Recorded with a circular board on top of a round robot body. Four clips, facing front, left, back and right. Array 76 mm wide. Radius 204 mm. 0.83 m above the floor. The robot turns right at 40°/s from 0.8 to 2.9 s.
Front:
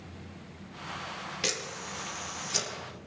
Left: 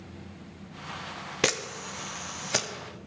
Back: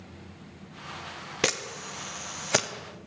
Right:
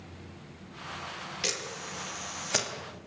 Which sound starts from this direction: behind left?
A camera shutter, at 1.4 s.